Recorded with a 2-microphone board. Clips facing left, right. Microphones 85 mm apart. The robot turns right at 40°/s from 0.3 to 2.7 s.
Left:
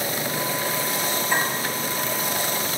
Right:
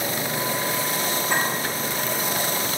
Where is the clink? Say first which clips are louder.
Even; 75° right (ahead or behind), 1.4 m; by 1.5 s 80° right, 1.4 m.